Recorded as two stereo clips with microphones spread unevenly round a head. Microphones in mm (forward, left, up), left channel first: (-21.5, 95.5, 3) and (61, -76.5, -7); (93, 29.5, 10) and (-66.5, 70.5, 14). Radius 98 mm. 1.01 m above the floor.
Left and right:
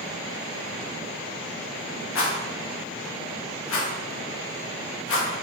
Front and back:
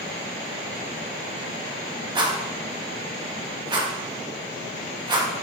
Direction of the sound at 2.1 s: 105° left.